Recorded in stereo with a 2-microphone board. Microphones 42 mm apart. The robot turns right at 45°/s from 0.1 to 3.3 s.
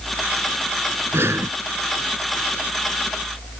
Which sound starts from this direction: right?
Breathing, at 1.1 s.